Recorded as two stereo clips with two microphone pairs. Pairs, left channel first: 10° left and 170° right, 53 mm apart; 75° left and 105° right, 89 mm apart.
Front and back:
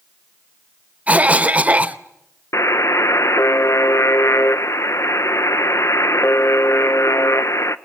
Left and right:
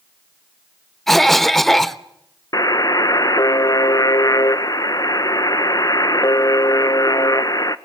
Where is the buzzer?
30° left, 0.8 m.